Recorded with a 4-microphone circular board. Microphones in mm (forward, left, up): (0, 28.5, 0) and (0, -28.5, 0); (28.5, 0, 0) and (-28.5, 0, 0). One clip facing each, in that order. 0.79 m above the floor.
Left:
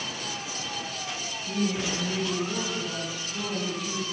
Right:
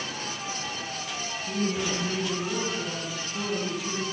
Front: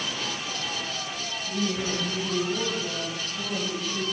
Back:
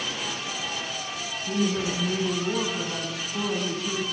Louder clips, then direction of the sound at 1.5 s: Even, back 3 dB; straight behind.